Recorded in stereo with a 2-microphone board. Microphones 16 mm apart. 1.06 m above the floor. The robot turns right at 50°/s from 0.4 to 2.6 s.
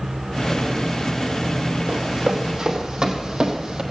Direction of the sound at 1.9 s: 65° right (ahead or behind).